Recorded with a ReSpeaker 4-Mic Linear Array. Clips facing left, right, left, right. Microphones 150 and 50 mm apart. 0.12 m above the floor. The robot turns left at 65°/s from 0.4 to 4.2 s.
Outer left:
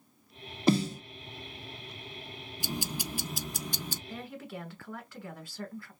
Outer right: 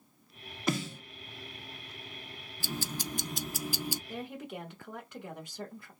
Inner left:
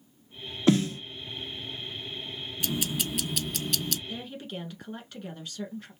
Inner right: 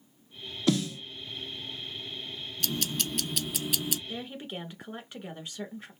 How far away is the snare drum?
About 0.5 m.